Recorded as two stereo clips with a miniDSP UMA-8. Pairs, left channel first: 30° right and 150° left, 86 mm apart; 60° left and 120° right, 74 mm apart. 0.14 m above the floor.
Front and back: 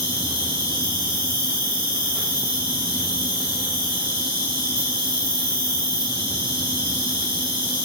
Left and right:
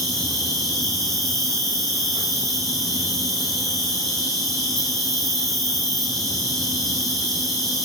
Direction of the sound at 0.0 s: 150° left.